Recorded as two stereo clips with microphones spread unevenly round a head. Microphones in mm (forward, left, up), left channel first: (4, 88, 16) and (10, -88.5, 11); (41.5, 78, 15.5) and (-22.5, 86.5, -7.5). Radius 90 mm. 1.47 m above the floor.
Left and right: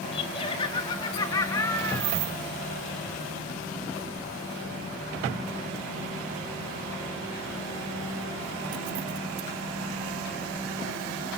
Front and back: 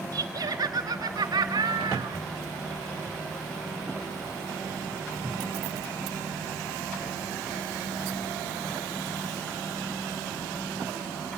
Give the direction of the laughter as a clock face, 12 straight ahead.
7 o'clock.